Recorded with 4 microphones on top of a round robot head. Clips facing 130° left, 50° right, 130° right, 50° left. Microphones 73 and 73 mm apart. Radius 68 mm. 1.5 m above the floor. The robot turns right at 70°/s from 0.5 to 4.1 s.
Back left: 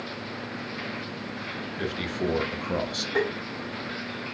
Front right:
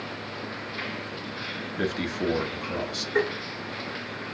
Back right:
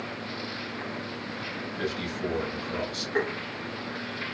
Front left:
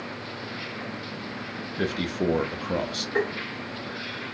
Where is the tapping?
145° left, 1.7 m; by 3.3 s 160° left, 1.7 m.